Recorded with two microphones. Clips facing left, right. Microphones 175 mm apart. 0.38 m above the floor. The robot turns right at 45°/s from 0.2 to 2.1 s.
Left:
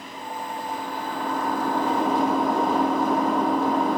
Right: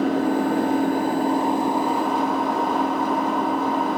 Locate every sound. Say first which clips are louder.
0.0 s an engine running: right 16 dB; 85° right; by 4.0 s straight ahead